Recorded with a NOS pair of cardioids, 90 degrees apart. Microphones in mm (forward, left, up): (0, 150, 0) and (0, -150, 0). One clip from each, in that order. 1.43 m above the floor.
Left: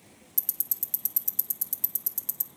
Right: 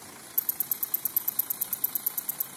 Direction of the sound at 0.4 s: 15° left.